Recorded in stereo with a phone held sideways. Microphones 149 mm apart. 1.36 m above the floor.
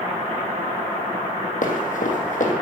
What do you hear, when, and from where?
1.6 s running footsteps: 60° left (ahead or behind), 3 m